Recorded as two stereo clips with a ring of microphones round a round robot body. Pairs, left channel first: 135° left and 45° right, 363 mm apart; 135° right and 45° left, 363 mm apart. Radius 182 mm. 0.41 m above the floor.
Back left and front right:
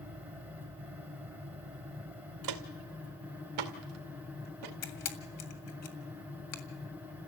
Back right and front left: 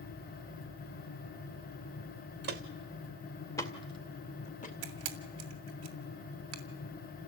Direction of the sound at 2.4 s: 15° right.